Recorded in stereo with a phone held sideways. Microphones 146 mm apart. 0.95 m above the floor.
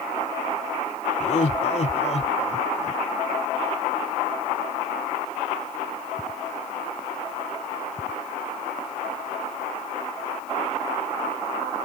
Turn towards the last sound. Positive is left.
turn(degrees=50)  # may be behind; listen again after turning